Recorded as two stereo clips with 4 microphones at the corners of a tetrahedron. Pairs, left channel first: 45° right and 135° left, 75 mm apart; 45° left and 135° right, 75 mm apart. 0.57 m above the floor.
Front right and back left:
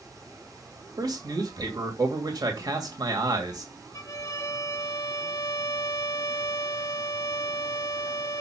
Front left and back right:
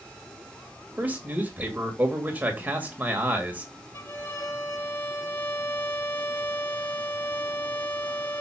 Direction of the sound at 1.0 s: 160° left.